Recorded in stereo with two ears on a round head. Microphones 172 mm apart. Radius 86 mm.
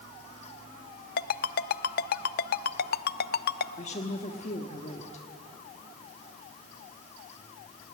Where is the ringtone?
50° left (ahead or behind), 0.5 m.